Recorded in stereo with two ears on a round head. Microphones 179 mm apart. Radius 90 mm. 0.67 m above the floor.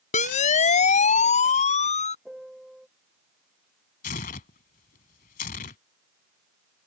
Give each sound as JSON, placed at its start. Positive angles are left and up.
{"t": 0.1, "sound": "a siren", "side_deg": 40}
{"t": 2.2, "sound": "a piano", "side_deg": 0}
{"t": 4.0, "sound": "tearing paper", "side_deg": 45}